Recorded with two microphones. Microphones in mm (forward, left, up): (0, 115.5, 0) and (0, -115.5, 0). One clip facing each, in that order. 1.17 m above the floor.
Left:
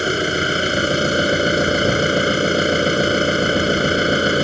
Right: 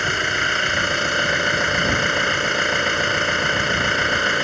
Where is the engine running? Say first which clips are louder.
Left 8 dB; 35° left (ahead or behind).